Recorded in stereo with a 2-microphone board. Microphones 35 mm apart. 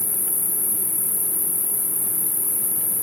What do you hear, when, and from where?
0.0 s an insect: 60° right (ahead or behind), 2.5 m